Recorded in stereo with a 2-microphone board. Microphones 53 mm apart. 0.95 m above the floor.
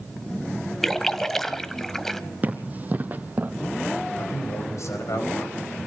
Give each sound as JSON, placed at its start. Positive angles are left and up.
{"t": 0.8, "sound": "a splash", "side_deg": 5, "distance_m": 0.8}
{"t": 2.4, "sound": "running footsteps", "side_deg": -35, "distance_m": 2.0}
{"t": 4.2, "sound": "a man speaking", "side_deg": 75, "distance_m": 4.5}